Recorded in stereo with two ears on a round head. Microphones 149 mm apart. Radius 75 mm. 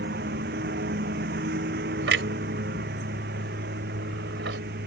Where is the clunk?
80° right.